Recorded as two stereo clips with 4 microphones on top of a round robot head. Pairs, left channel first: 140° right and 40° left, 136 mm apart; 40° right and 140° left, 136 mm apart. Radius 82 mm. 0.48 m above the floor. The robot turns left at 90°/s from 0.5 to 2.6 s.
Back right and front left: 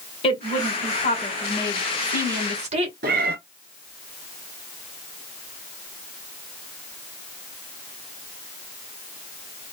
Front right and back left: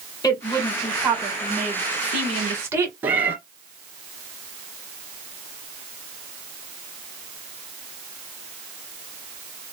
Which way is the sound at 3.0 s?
60° left.